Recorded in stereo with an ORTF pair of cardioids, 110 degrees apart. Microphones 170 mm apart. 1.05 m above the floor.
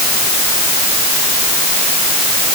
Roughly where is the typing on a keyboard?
I don't hear typing on a keyboard.